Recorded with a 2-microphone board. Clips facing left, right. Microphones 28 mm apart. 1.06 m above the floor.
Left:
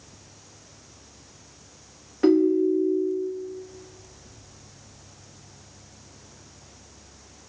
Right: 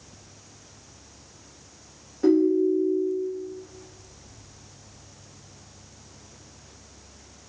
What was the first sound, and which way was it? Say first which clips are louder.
A ringtone: left 1 dB; 60° left (ahead or behind).